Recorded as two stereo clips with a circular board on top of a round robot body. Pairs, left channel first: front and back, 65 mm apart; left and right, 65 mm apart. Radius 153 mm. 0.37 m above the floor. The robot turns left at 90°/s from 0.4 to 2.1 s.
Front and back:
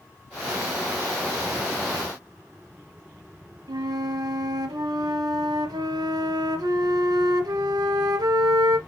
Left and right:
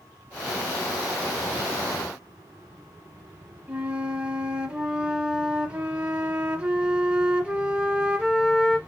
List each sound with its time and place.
3.7 s a flute: 165° right, 0.9 m